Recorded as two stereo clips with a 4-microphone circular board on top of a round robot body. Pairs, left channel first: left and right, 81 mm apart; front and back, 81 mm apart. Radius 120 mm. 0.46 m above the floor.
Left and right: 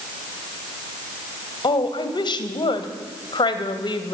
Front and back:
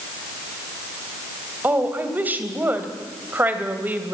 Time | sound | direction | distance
1.6 | a woman speaking | 115° left | 2.5 m